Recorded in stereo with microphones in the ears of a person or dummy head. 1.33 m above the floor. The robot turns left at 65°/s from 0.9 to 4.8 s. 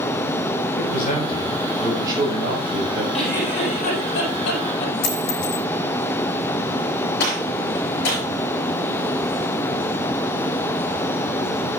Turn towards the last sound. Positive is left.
turn(degrees=65)  # may be behind; listen again after turning